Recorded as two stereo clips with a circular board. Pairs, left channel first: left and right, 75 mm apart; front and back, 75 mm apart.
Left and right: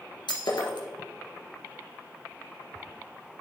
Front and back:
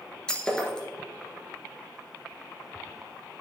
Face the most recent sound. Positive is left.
turn(degrees=80)